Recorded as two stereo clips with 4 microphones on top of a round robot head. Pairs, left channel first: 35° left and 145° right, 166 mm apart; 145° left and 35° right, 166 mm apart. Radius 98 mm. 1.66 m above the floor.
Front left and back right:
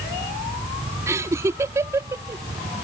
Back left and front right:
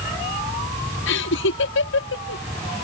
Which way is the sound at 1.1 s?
140° left.